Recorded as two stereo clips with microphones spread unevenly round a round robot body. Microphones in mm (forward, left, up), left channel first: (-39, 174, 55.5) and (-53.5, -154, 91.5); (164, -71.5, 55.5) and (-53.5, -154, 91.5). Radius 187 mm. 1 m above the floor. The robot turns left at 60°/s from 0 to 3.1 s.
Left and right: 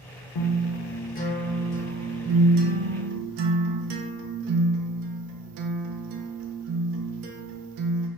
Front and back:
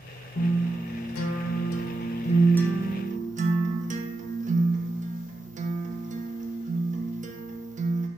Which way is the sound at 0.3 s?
75° left.